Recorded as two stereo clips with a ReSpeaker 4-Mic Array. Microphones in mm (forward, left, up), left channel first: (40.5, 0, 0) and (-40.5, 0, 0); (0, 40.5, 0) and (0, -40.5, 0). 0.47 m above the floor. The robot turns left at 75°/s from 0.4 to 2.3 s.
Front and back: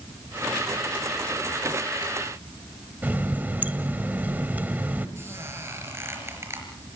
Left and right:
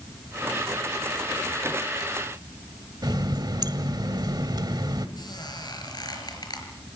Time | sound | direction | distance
3.0 | a running tap | 115° right | 1.6 m
5.2 | a squeak | 120° left | 5.5 m